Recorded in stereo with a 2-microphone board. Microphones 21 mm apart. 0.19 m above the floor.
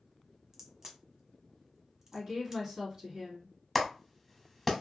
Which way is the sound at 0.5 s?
25° right (ahead or behind).